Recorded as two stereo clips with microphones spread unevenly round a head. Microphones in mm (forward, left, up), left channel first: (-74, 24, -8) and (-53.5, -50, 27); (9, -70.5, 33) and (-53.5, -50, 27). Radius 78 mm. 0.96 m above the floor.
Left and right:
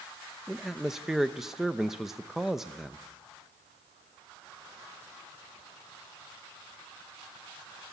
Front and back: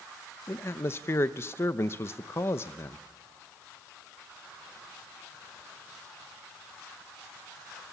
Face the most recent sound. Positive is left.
turn(degrees=35)